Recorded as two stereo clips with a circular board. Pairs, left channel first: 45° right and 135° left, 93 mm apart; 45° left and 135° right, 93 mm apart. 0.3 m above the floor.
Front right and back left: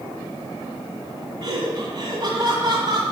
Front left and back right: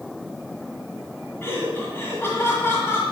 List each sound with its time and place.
1.4 s laughter: 105° left, 1.9 m